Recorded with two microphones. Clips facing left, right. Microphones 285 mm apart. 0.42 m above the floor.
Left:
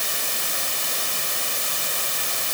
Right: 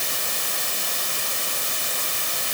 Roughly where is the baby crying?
I don't hear a baby crying.